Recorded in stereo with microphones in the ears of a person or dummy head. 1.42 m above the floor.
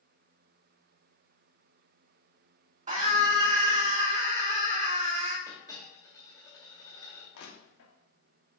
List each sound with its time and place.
2.9 s a scream: 40° right (ahead or behind), 2.5 m
5.5 s a dropped coin: 15° left (ahead or behind), 2.5 m
7.3 s crushing: 65° left (ahead or behind), 1.9 m